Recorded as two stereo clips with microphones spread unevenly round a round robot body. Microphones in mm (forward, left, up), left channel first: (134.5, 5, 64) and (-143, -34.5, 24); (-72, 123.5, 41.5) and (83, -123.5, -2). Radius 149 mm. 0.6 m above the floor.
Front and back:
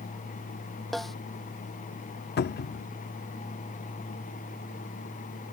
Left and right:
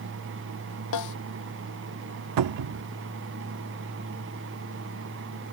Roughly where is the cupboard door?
Ahead right.